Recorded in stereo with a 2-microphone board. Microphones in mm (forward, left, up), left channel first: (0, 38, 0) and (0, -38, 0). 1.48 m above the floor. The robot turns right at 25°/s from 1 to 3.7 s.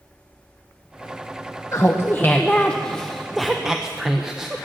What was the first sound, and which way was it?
Laughter, 140° left.